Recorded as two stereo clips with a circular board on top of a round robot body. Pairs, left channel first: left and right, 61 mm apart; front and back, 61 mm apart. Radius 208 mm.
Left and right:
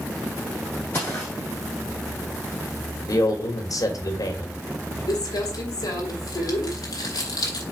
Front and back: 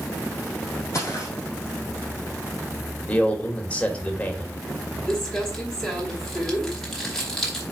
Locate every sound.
0.9 s footsteps: 40° left, 0.9 m
3.1 s a man speaking: 70° left, 1.6 m
5.1 s crumpling: 80° left, 1.2 m